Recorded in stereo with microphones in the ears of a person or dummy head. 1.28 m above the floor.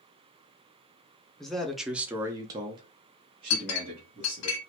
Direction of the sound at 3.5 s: 85° left.